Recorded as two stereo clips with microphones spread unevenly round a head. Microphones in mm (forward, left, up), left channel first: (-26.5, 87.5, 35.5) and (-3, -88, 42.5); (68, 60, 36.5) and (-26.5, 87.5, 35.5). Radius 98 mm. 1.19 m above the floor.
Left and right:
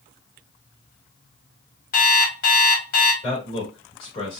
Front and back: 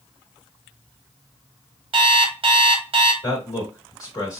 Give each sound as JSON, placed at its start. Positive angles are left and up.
{"t": 1.9, "sound": "an alarm clock", "azimuth_deg": 140, "distance_m": 1.3}
{"t": 3.2, "sound": "a man speaking", "azimuth_deg": 40, "distance_m": 2.5}